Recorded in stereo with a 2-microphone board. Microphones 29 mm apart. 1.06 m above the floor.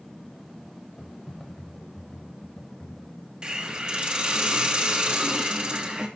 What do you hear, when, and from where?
1.0 s typing on a keyboard: 20° left (ahead or behind), 3 m
3.4 s a hiss: 30° right (ahead or behind), 2.5 m